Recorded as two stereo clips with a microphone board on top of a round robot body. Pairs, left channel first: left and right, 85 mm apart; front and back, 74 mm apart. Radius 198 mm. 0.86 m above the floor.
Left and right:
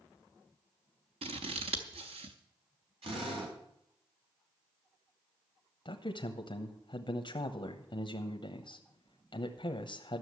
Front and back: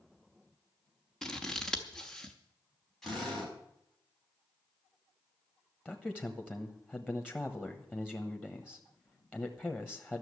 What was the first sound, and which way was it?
Scissors, 85° right.